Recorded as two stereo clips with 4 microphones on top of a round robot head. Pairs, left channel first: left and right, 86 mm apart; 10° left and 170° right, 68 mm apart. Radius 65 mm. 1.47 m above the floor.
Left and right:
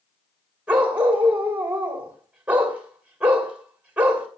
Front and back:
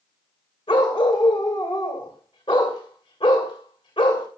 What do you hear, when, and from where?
0.7 s a dog barking: 20° right, 2.5 m